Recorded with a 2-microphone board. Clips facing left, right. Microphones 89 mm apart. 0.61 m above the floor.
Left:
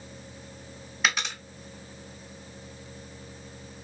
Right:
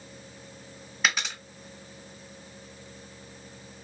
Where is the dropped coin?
Centre (ahead or behind), 0.9 m.